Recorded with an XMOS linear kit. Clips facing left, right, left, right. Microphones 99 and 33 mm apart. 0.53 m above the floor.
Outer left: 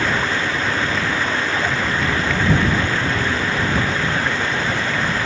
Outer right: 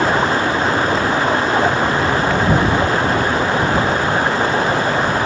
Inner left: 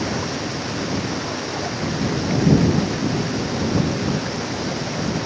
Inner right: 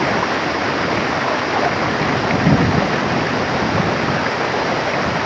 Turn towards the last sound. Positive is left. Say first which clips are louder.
# outer right 5 dB, inner right 8 dB
turn(degrees=-40)  # may be behind; listen again after turning